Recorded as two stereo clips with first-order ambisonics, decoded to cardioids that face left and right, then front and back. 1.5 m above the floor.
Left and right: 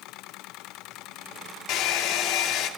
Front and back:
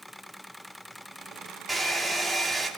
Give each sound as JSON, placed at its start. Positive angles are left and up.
{"t": 1.7, "sound": "a hair dryer", "azimuth_deg": 95, "distance_m": 2.0}